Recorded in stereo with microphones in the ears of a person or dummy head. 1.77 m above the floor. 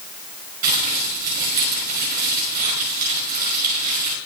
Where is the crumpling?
50° right (ahead or behind), 5.5 m.